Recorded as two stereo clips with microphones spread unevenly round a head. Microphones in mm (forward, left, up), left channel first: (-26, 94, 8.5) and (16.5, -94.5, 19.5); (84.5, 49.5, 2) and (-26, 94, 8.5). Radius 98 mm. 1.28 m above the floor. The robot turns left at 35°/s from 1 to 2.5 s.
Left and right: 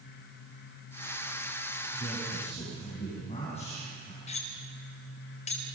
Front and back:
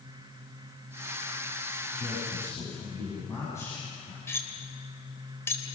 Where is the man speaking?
65° left, 8.5 m; by 4.2 s 45° left, 8.5 m.